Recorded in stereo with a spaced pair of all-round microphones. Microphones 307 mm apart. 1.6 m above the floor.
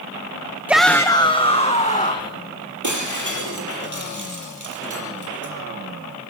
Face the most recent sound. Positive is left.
turn(degrees=-70)  # may be behind; listen again after turning